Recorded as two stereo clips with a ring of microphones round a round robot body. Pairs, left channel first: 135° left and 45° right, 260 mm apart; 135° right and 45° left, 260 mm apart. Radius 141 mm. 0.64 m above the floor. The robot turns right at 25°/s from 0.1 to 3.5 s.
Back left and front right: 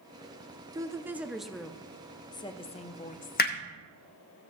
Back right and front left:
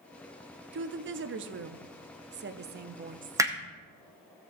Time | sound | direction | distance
0.7 | a woman speaking | 25° left | 0.7 m
3.4 | hammering | 115° left | 1.0 m